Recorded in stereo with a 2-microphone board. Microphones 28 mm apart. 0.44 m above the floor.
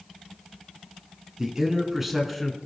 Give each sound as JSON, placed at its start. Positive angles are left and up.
{"t": 1.4, "sound": "a man speaking", "side_deg": -25, "distance_m": 4.5}